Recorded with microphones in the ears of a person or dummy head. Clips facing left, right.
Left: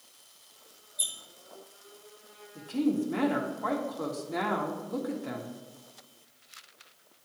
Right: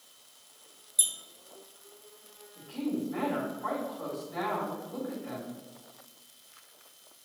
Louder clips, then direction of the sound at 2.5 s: Left 5 dB; 60° left (ahead or behind).